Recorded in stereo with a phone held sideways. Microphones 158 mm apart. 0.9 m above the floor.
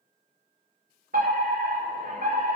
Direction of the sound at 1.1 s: 70° right (ahead or behind).